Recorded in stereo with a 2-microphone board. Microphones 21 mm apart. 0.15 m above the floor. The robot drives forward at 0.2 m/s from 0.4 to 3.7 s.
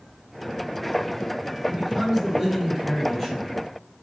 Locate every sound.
1.7 s a man speaking: 25° right (ahead or behind), 1.8 m; by 3.7 s 20° right (ahead or behind), 2 m